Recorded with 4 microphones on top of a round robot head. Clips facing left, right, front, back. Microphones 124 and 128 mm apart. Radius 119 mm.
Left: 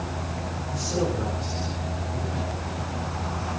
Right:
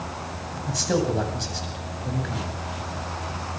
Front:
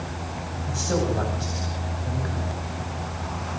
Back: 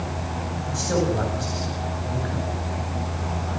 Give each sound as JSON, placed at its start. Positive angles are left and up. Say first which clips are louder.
{"t": 0.7, "sound": "a man speaking", "louder": "right 4 dB, back 2 dB", "azimuth_deg": -85, "distance_m": 9.0}